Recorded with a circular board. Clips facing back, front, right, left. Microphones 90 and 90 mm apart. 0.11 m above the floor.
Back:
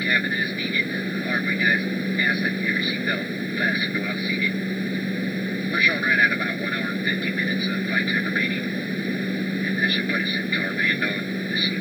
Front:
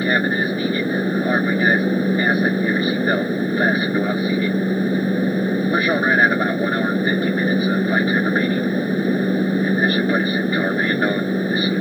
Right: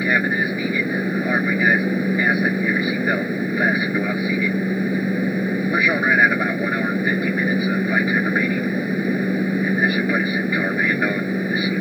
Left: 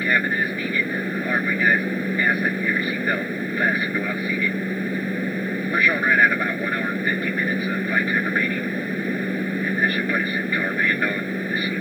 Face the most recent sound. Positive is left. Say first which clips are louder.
# front 5 dB, right 2 dB
turn(degrees=-15)